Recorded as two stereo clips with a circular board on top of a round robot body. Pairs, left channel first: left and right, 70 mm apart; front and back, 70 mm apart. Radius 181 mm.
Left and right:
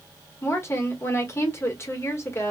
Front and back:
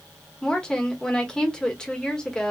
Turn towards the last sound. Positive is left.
turn(degrees=75)